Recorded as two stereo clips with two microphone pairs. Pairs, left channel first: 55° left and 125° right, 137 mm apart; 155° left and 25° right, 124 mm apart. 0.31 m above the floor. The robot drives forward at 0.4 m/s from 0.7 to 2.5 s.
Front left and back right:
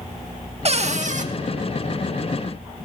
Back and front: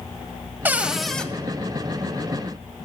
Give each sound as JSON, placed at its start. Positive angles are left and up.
{"t": 0.7, "sound": "a cupboard door", "azimuth_deg": -95, "distance_m": 0.5}